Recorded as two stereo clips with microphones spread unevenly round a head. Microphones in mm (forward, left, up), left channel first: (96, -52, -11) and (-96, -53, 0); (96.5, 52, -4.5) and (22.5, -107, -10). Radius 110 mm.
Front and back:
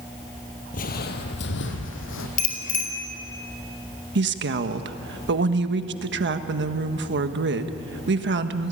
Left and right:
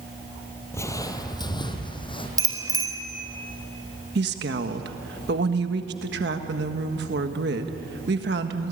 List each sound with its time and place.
0.7 s footsteps: straight ahead, 1.9 m; by 2.3 s 5° left, 3.5 m
2.4 s a bicycle bell: 45° right, 4 m
4.2 s a woman speaking: 155° right, 1.5 m